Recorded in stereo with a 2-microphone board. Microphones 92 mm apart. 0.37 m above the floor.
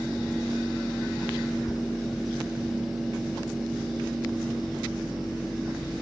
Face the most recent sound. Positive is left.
No sound to turn to.